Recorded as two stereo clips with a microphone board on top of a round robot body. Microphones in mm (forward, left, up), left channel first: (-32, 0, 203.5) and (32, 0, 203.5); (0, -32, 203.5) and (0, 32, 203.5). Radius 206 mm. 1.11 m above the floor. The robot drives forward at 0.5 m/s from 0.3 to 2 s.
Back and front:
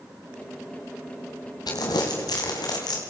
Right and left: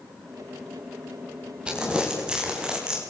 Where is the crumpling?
165° left, 2.5 m.